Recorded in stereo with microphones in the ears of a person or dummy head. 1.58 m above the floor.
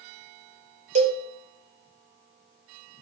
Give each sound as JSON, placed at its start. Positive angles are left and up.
{"t": 0.9, "sound": "a cowbell", "side_deg": -40, "distance_m": 0.6}